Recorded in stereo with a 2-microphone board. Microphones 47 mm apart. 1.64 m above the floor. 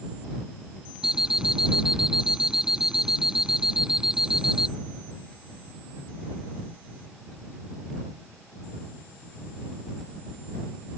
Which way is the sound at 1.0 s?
10° right (ahead or behind).